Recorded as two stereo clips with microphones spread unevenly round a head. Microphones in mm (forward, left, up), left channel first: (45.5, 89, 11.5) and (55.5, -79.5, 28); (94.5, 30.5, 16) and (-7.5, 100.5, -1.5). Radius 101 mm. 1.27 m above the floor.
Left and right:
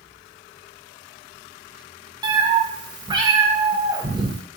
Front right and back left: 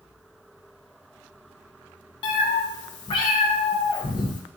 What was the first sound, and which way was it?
A cat meowing, 40° right.